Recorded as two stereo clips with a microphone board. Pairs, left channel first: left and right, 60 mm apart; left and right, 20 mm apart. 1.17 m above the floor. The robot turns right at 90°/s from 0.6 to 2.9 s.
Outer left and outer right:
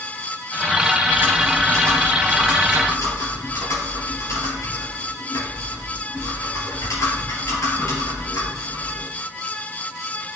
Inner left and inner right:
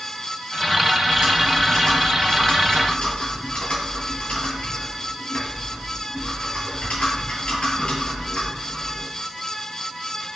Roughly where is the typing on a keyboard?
Ahead right.